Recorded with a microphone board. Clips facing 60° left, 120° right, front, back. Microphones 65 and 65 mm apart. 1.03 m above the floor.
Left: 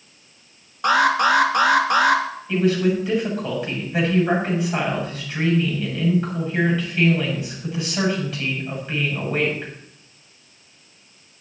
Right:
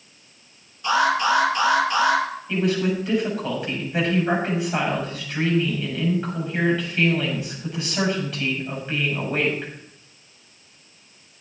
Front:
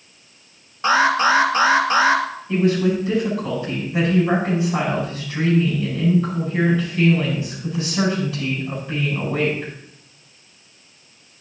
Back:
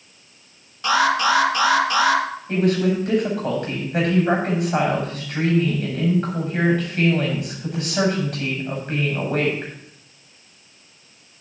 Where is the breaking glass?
I don't hear breaking glass.